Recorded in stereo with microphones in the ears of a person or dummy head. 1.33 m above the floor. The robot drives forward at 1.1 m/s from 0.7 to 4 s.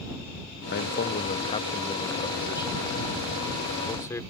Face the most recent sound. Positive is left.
turn(degrees=15)  # may be behind; listen again after turning